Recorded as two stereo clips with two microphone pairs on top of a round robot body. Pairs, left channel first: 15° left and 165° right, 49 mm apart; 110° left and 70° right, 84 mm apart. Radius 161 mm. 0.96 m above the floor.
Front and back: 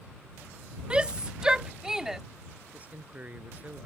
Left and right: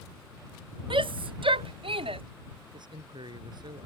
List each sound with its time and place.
0.9 s a shout: 95° right; by 2.2 s 85° right
2.7 s a man speaking: 105° right